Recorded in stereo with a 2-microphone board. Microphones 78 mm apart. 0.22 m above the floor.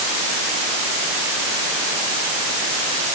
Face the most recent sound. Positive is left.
No sound to turn to.